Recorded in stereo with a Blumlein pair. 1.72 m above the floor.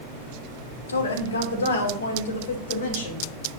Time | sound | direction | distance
0.9 | a woman speaking | 70° left | 1.9 m